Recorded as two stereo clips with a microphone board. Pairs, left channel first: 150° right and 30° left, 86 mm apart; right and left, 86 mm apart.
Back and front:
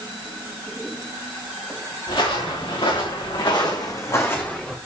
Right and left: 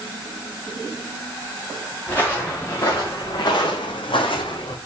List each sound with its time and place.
2.1 s footsteps: 155° right, 3.5 m; by 4.8 s 65° right, 2 m